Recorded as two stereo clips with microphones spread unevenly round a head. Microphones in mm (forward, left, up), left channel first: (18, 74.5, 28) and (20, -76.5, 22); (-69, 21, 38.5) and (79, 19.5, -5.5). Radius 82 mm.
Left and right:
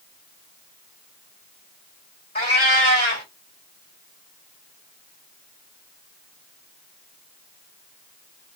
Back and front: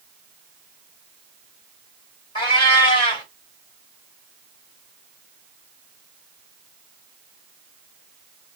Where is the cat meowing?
140° left, 2 m.